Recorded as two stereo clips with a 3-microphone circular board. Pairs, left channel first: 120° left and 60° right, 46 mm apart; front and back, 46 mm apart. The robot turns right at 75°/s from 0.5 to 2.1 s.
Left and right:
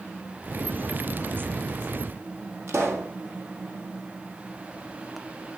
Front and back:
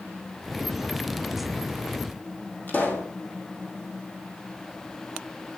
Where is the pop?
50° right, 3 m.